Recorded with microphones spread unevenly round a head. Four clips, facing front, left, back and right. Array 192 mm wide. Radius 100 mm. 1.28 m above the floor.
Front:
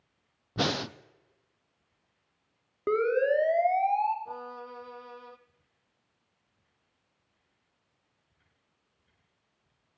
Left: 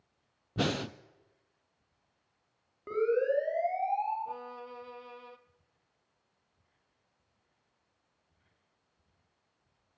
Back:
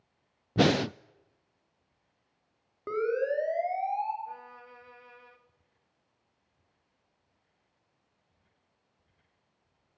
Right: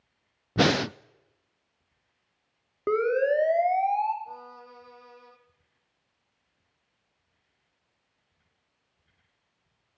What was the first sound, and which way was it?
Breathing, 120° right.